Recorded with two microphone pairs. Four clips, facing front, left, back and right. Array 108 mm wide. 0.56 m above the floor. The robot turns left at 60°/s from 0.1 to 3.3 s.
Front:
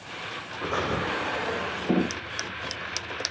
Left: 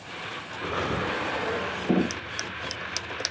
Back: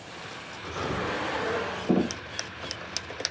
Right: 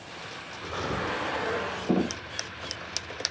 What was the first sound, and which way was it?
Breathing, 5° left.